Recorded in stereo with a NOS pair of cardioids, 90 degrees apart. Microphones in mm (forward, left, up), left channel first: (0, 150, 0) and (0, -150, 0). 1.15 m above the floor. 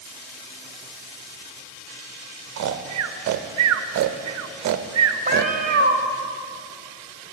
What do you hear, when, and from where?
2.6 s snoring: 60° right, 0.8 m
5.3 s a cat meowing: 25° right, 1.5 m